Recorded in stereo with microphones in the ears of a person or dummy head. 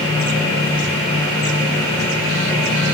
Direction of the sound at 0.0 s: 25° left (ahead or behind).